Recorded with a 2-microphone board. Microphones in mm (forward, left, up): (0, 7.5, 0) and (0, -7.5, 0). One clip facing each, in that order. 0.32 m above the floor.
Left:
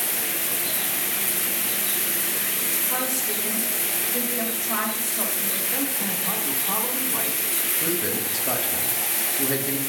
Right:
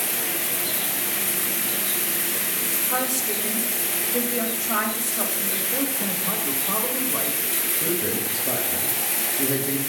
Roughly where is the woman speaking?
Right.